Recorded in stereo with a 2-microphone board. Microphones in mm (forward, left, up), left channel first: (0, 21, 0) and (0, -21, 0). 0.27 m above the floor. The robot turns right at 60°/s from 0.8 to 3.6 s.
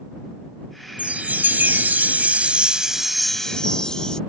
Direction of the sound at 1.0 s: 135° right.